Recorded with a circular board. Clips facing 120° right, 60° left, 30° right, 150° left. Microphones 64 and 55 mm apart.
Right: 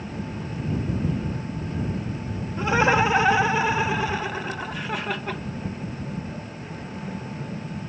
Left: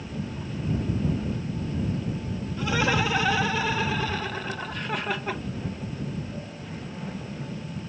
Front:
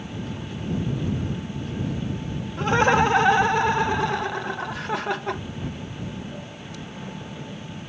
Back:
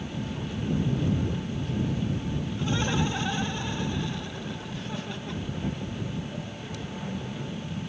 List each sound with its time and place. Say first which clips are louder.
2.6 s laughter: right 5 dB, front 11 dB; 60° right; by 5.4 s 20° right